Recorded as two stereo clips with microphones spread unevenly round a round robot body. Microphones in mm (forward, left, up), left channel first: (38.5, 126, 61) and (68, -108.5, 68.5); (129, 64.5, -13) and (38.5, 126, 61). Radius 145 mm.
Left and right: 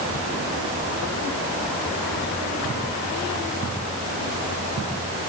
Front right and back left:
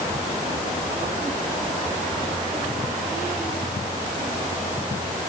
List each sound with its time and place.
Only background noise.